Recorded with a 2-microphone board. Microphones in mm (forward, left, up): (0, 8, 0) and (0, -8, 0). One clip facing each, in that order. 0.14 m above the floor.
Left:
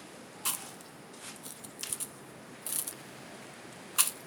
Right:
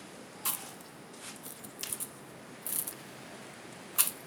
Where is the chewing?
30° left (ahead or behind), 0.9 m.